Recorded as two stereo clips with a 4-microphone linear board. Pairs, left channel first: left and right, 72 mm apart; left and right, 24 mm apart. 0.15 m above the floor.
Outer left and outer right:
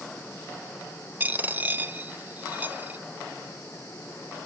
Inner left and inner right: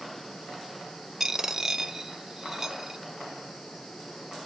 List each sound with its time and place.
1.2 s a dropped coin: 25° right (ahead or behind), 0.6 m